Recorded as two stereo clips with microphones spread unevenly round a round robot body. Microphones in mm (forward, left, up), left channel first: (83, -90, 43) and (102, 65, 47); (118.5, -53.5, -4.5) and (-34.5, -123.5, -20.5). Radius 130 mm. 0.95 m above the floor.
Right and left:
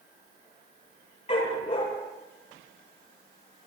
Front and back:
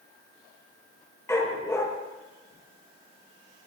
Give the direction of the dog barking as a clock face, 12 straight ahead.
2 o'clock.